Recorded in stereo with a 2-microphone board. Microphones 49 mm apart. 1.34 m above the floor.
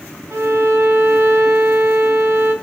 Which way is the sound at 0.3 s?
65° right (ahead or behind).